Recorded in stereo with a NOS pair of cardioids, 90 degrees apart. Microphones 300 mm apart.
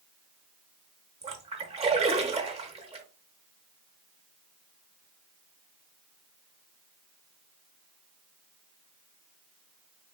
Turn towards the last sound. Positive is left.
turn(degrees=-20)